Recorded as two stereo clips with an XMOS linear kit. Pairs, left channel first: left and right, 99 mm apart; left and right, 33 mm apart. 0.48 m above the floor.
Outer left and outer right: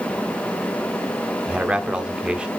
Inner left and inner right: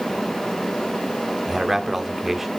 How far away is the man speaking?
About 0.9 m.